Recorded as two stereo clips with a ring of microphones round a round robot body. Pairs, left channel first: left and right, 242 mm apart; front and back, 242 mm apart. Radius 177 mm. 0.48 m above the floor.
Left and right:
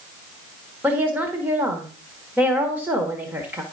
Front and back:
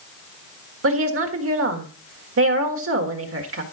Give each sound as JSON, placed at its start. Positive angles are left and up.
{"t": 0.8, "sound": "a woman speaking", "azimuth_deg": -175, "distance_m": 1.6}